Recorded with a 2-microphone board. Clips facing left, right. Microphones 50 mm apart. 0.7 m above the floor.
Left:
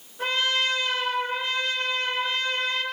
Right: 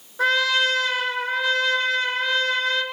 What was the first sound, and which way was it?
A trumpet, 80° right.